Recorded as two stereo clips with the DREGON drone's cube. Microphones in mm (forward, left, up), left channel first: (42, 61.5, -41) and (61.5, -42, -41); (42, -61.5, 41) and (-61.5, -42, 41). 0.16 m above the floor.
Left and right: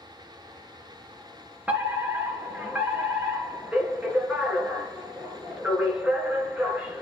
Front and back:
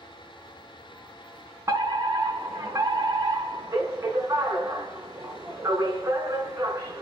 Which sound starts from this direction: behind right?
A fire alarm, at 1.7 s.